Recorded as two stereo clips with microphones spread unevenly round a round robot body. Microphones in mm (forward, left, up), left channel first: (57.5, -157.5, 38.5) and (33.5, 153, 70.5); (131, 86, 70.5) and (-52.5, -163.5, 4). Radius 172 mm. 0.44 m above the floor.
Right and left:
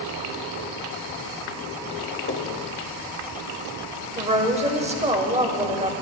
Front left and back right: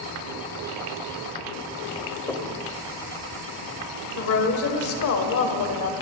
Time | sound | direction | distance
2.3 | knocking | 35° right | 1.8 m
4.2 | a woman speaking | 25° left | 1.9 m